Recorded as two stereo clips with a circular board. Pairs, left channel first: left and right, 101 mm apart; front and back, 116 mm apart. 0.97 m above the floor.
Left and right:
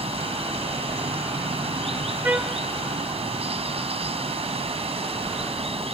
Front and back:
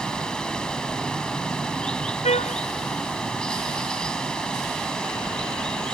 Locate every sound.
0.0 s running water: 80° right
2.2 s a trumpet: 15° right